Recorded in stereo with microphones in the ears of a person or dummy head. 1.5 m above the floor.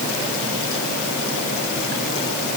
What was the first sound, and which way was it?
Only background noise.